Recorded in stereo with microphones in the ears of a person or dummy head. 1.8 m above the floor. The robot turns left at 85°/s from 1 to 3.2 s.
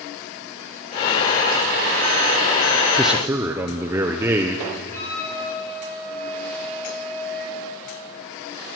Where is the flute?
15° left (ahead or behind), 9.5 m.